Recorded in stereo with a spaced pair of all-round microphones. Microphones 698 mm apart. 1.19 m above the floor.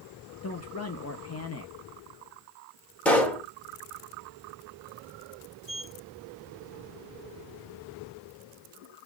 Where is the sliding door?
50° left (ahead or behind), 2.0 m.